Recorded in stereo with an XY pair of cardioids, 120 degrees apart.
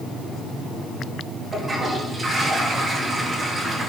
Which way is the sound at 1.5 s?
30° right.